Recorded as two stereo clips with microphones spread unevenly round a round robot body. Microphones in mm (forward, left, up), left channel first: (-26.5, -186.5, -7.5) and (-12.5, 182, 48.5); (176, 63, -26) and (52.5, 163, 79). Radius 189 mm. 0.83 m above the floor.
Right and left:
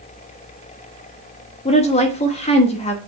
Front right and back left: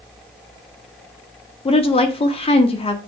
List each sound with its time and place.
1.6 s a woman speaking: 25° right, 1.0 m